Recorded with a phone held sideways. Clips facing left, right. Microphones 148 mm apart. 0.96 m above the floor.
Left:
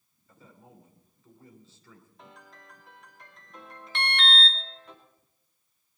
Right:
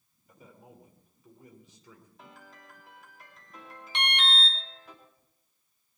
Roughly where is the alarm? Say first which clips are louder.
Left 2 dB; centre.